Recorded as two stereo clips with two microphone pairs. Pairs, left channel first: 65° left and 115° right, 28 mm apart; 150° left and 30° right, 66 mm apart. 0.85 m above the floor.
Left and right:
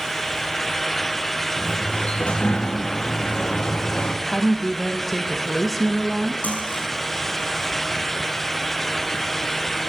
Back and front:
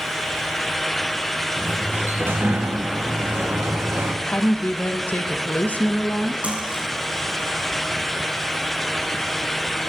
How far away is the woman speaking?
About 0.9 m.